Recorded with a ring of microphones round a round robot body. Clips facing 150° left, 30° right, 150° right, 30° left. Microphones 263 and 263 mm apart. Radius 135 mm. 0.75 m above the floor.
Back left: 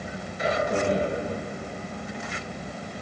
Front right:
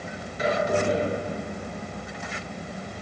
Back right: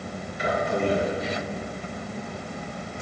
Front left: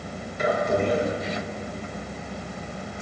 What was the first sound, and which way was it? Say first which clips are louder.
A man speaking: front right 1 dB, front left 2 dB; 15° right.